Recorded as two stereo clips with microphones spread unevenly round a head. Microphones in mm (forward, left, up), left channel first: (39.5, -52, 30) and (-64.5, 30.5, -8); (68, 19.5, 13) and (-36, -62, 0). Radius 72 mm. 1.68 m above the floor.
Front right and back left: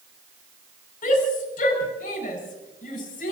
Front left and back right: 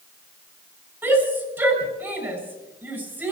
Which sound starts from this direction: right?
A shout, at 1.0 s.